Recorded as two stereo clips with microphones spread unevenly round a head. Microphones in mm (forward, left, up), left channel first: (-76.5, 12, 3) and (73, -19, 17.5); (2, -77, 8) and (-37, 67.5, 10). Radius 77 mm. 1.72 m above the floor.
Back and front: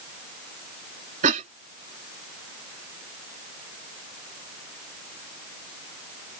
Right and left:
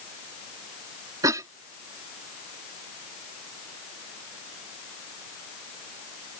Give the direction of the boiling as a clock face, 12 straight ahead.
No boiling in this recording.